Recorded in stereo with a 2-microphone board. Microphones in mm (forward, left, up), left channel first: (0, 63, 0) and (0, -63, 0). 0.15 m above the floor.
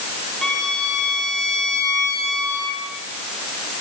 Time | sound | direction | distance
0.4 | a violin | 5° left (ahead or behind) | 4.5 m